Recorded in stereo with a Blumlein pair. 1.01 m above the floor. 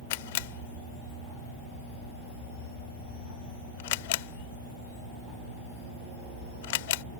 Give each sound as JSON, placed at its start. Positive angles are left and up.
{"t": 0.1, "sound": "a camera shutter", "azimuth_deg": 50}